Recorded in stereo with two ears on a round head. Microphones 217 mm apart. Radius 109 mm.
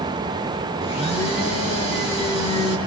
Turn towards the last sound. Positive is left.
turn(degrees=25)  # may be behind; listen again after turning